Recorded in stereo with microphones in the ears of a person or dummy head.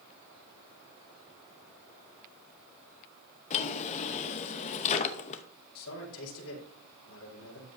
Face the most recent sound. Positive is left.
turn(degrees=75)  # may be behind; listen again after turning